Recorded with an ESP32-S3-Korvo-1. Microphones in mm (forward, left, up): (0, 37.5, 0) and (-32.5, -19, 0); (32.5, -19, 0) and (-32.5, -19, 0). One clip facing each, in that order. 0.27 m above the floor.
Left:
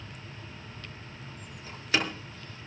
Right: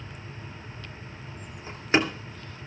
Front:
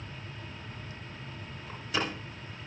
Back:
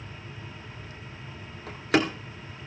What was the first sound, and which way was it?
A door slam, straight behind.